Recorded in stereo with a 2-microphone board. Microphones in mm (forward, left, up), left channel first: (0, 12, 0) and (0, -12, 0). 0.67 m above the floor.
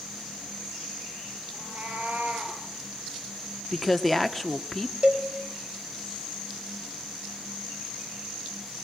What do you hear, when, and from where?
1.5 s a cat meowing: 90° right, 5.5 m; by 2.6 s 80° right, 5 m
3.7 s a woman speaking: 5° left (ahead or behind), 1.1 m
5.0 s a cowbell: 30° right (ahead or behind), 3 m